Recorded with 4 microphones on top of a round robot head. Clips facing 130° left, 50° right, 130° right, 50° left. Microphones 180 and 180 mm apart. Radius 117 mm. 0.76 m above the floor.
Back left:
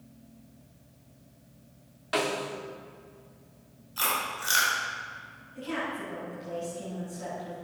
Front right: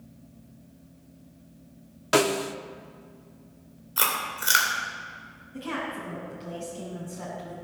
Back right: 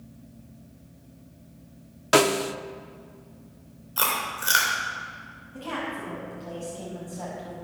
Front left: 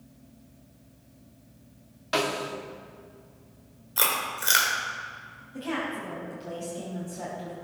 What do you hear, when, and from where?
2.1 s a snare drum: 95° right, 0.6 m
4.0 s chewing: 25° right, 3 m
5.5 s a woman speaking: 30° right, 5 m